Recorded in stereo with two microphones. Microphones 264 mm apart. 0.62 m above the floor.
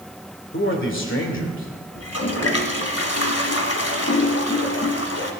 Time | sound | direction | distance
0.5 | a man speaking | 50° left (ahead or behind) | 2.5 m
1.9 | a toilet flushing | 65° left (ahead or behind) | 1.5 m